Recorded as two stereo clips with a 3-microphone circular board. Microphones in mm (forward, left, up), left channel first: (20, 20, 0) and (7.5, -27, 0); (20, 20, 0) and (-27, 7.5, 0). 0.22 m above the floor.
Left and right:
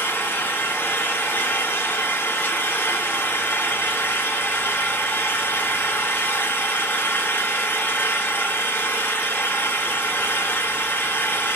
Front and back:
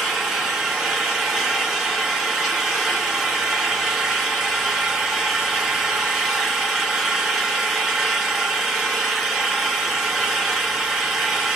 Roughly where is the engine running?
Behind left.